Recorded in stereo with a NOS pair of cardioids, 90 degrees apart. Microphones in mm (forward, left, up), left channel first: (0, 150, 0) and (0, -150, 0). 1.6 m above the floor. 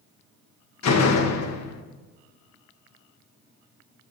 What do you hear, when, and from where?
0.8 s a door slam: 65° left, 1.3 m